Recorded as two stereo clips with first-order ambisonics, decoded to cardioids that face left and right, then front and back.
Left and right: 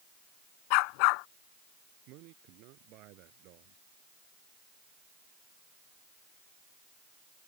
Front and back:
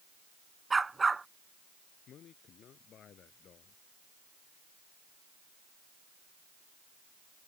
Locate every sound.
0.7 s a dog barking: 100° left
2.1 s a man speaking: 60° right